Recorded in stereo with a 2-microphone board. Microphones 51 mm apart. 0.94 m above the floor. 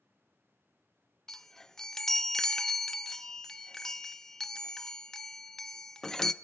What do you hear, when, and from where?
1.3 s a chime: 10° left (ahead or behind), 0.6 m